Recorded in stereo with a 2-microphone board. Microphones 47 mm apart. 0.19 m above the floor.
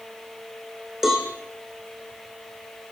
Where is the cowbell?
5° right (ahead or behind), 7.5 m.